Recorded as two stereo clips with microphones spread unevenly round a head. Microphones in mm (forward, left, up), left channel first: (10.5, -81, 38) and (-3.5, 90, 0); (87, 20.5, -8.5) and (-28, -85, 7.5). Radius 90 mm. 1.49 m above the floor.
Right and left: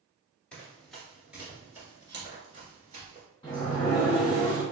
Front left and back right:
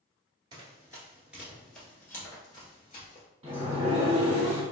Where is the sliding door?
125° right, 1.6 m.